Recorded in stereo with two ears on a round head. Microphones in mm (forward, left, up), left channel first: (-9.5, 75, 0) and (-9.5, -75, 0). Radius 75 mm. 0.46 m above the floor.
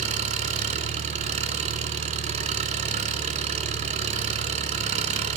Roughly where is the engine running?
Right.